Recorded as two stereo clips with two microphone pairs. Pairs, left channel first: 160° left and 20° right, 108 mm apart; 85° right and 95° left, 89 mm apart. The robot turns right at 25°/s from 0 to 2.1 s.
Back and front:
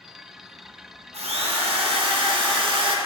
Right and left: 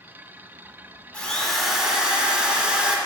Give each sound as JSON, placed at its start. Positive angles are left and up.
{"t": 1.1, "sound": "a drill", "azimuth_deg": -10, "distance_m": 0.9}